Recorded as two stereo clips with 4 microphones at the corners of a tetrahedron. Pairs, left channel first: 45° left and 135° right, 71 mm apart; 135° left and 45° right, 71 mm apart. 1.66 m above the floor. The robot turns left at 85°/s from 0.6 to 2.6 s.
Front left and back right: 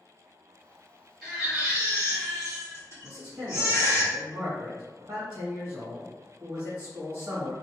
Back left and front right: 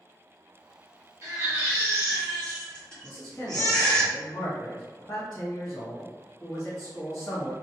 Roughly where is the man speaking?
Behind.